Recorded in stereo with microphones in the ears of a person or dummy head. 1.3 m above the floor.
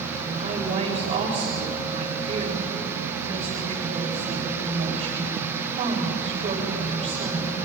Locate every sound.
0.2 s a woman speaking: 40° right (ahead or behind), 7 m